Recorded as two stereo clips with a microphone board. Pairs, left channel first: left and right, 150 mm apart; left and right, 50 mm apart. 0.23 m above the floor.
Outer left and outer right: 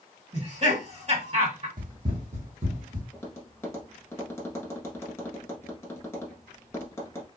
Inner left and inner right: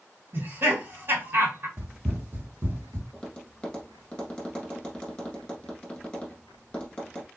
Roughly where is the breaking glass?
No breaking glass in this recording.